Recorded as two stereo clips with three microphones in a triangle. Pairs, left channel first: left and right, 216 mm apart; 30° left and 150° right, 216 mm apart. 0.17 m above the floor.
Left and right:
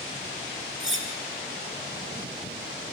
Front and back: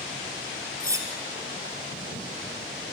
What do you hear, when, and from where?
0.8 s cutlery clinking: 75° right, 2.5 m